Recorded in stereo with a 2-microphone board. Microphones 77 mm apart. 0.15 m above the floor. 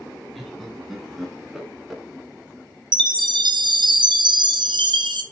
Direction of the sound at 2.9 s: 75° right (ahead or behind).